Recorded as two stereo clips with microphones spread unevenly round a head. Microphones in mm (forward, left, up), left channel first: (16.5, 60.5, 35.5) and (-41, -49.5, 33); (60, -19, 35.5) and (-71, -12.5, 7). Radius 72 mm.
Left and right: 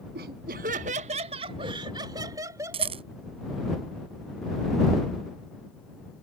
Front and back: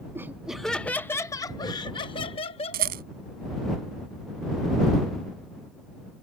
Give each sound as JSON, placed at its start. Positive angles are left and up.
{"t": 0.1, "sound": "laughter", "azimuth_deg": -105}
{"t": 2.7, "sound": "a rattle", "azimuth_deg": -165}